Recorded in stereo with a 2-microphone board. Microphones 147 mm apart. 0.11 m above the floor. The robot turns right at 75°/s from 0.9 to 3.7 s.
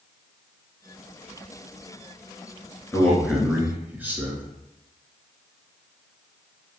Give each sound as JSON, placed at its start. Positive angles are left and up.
{"t": 2.9, "sound": "a man speaking", "side_deg": 15, "distance_m": 1.3}